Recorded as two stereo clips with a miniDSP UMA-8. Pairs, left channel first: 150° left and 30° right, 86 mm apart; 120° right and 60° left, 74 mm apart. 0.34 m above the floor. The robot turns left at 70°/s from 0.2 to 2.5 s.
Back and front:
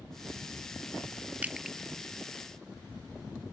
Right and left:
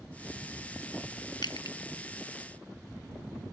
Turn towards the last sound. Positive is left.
turn(degrees=-175)